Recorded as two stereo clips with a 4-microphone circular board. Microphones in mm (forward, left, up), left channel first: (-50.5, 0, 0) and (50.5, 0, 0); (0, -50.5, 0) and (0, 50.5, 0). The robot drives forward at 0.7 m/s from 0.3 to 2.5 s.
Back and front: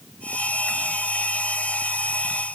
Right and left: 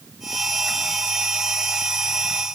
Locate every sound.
Only background noise.